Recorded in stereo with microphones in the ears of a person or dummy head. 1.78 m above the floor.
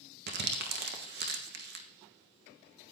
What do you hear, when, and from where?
0.3 s crumpling: 50° right (ahead or behind), 1.3 m